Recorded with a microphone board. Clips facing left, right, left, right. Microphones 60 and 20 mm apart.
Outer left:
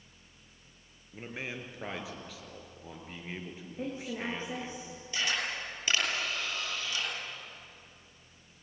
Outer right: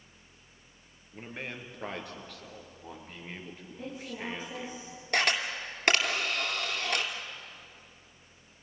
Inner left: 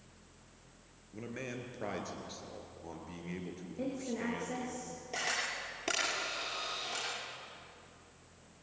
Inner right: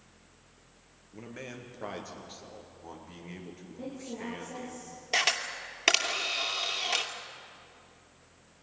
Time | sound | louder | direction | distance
1.1 | a man speaking | outer left 1 dB, inner left 1 dB | 5° left (ahead or behind) | 3.5 m
3.8 | a woman speaking | outer left 3 dB, inner left 2 dB | 35° left (ahead or behind) | 3.5 m
5.1 | a camera shutter | outer right 5 dB, inner right 7 dB | 60° right (ahead or behind) | 2.5 m